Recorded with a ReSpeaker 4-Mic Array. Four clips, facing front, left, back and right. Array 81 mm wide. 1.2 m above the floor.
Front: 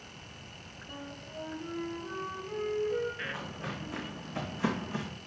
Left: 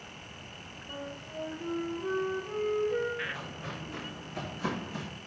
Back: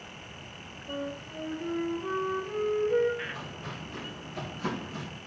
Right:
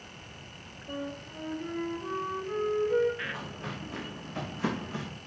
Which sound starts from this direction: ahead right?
Footsteps, at 3.2 s.